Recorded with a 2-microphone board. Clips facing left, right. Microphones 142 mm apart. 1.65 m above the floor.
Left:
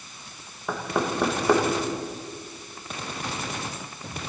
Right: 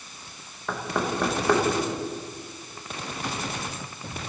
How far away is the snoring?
No snoring in this recording.